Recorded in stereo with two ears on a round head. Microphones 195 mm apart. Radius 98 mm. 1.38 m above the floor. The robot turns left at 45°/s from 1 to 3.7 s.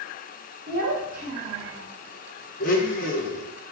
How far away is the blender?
About 0.6 m.